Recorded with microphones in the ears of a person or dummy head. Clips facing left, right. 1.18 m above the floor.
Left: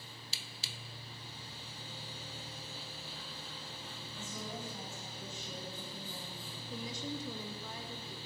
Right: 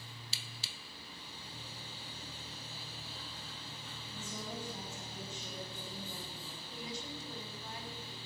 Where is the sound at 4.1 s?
30° right (ahead or behind), 8 m.